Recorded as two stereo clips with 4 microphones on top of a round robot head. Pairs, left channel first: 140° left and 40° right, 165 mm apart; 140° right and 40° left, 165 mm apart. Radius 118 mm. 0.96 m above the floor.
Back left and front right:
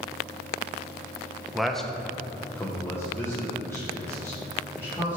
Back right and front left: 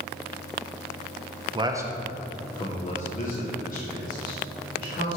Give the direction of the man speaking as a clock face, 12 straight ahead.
10 o'clock.